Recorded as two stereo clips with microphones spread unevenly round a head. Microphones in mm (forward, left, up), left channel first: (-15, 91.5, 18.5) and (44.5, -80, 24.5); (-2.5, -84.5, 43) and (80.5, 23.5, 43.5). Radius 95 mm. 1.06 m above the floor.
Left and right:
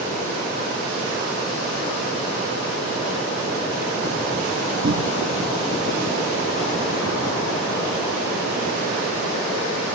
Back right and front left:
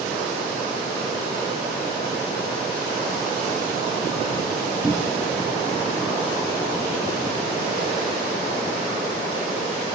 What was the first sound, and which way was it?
A cupboard door, 35° right.